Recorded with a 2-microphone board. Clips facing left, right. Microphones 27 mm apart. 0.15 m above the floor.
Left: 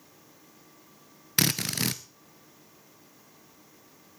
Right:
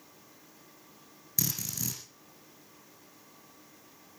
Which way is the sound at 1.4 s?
60° left (ahead or behind).